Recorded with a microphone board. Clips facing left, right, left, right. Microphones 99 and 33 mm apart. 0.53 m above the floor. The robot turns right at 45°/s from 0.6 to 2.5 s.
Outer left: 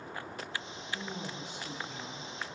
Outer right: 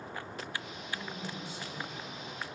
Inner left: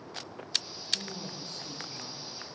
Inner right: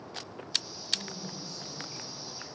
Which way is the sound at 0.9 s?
30° left.